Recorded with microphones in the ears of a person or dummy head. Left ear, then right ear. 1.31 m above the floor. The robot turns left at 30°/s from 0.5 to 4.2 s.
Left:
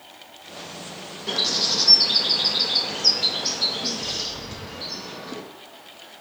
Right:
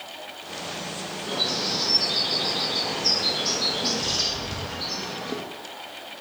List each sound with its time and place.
1.3 s a bird: 60° left (ahead or behind), 0.5 m; by 5.4 s centre (ahead or behind), 0.5 m